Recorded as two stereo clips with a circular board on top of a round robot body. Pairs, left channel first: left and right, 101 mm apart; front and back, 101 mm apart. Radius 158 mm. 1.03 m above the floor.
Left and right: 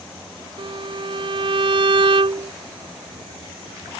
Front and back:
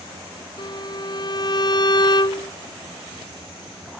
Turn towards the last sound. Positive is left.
turn(degrees=-50)